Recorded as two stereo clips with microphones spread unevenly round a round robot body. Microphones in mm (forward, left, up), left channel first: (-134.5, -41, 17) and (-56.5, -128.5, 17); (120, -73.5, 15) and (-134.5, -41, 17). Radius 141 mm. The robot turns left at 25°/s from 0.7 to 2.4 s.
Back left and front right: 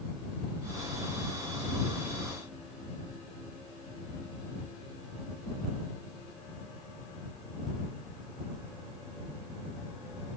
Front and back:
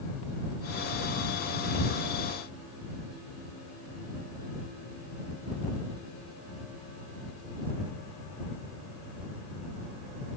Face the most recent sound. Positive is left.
No sound to turn to.